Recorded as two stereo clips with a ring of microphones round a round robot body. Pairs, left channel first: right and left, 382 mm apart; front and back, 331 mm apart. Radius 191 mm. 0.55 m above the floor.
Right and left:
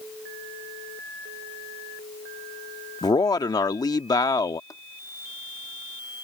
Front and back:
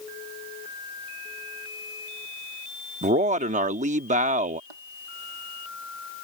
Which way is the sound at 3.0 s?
155° right.